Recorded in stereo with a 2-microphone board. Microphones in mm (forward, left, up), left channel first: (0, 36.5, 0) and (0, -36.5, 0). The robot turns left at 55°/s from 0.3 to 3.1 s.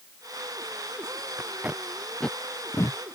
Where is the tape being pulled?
35° right (ahead or behind); by 3.0 s 55° left (ahead or behind).